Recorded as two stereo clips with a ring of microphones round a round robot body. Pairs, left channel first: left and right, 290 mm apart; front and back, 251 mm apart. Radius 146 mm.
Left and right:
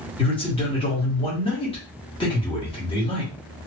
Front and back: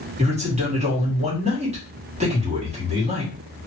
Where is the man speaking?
145° left, 1.4 m.